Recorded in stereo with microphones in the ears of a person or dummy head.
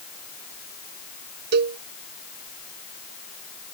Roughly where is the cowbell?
Right.